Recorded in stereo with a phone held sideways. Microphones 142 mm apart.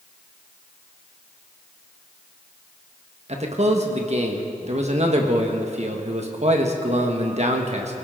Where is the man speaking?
50° right (ahead or behind), 1.5 m.